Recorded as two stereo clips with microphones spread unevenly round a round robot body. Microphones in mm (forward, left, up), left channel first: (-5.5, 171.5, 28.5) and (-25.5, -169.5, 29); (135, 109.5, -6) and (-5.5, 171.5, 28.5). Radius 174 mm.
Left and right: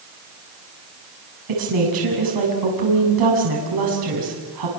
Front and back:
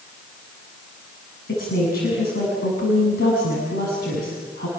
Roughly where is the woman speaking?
Ahead right.